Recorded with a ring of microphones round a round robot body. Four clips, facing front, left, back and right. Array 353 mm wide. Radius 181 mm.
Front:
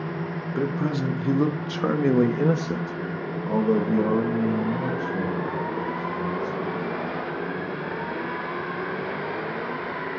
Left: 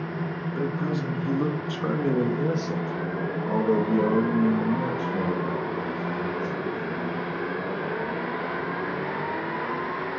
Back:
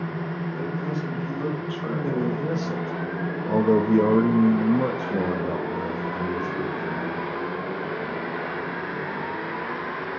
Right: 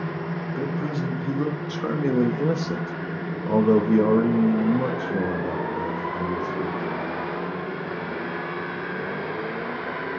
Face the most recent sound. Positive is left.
turn(degrees=-160)